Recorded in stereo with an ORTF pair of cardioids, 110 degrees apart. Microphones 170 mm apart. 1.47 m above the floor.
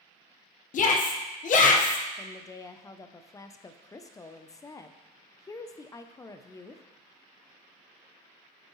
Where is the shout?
50° left, 1.1 m.